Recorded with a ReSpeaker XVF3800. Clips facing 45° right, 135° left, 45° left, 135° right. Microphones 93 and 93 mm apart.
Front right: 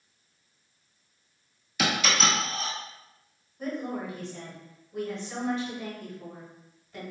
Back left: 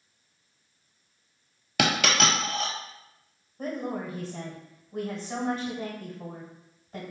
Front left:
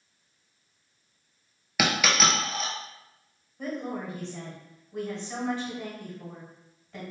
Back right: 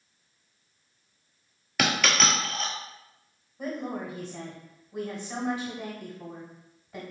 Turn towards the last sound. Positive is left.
turn(degrees=150)